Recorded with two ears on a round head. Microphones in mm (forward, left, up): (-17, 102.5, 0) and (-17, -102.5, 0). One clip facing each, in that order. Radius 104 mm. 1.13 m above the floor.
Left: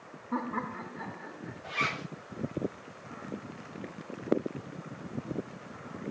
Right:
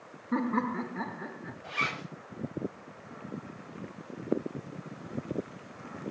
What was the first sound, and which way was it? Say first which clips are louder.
Laughter: right 6 dB; 25° right (ahead or behind).